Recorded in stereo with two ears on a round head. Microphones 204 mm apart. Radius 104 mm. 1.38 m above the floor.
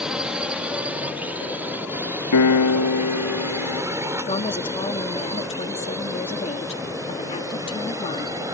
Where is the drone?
5° right (ahead or behind); by 8.5 s 15° right (ahead or behind).